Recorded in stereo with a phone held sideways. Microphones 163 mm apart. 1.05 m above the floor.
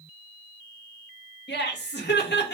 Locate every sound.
1.5 s laughter: 80° left, 1.3 m